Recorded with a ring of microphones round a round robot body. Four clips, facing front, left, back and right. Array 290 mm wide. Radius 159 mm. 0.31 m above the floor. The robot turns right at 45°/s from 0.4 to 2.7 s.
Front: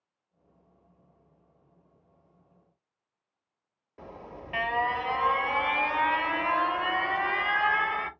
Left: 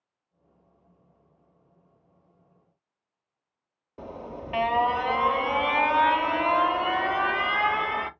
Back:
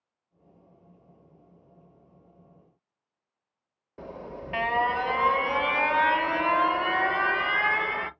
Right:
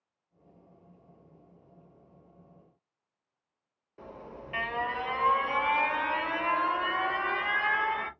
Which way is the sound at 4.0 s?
130° left.